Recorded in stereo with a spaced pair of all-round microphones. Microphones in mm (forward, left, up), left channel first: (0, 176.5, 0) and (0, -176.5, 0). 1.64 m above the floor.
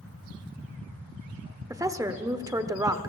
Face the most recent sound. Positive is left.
turn(degrees=-10)  # may be behind; listen again after turning